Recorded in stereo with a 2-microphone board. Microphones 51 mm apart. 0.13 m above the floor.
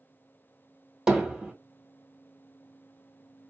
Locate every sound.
1.1 s hammering: 15° right (ahead or behind), 2 m